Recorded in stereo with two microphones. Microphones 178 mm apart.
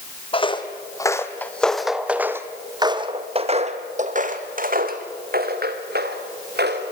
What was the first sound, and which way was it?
Footsteps, 30° left (ahead or behind).